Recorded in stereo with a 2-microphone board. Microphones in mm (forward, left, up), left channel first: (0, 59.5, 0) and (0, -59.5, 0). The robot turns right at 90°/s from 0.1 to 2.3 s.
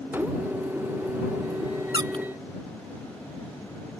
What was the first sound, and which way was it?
A squeak, 40° right (ahead or behind).